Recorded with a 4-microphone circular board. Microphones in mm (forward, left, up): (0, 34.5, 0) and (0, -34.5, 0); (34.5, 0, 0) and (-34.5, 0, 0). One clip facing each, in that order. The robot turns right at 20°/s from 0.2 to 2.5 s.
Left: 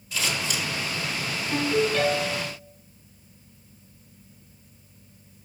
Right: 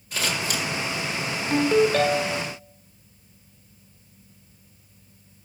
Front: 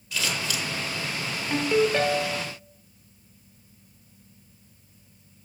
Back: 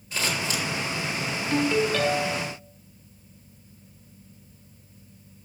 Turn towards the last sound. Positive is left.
turn(degrees=-50)